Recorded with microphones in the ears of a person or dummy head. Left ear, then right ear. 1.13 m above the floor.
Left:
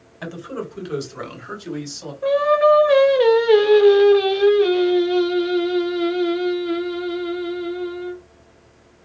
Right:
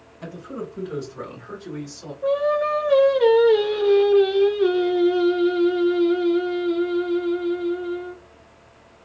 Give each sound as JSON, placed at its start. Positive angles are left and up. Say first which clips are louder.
{"t": 0.2, "sound": "a man speaking", "louder": "left 4 dB", "side_deg": 40, "distance_m": 1.0}
{"t": 2.2, "sound": "singing", "louder": "left 5 dB", "side_deg": 30, "distance_m": 0.7}